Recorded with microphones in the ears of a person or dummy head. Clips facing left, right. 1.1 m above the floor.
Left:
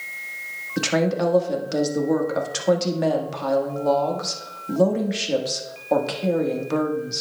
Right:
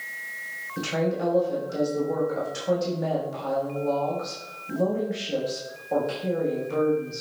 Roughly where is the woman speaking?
Left.